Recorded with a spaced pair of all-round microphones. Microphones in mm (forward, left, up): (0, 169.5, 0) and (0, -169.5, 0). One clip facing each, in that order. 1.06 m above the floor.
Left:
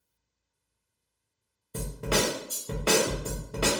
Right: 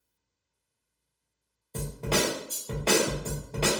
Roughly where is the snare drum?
Centre.